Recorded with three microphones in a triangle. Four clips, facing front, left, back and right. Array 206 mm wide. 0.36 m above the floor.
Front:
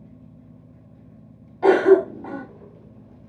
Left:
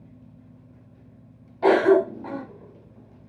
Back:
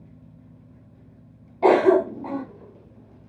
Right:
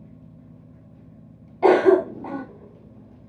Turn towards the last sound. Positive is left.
turn(degrees=-140)